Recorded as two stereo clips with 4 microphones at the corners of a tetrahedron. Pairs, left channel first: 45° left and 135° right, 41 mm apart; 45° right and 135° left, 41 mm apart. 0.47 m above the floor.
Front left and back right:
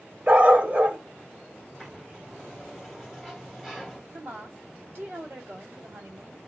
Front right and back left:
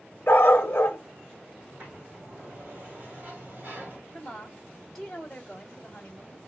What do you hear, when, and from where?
0.3 s a dog barking: 80° right, 1.3 m
1.6 s a sliding door: 140° left, 1.7 m
4.1 s a woman speaking: 120° right, 1.7 m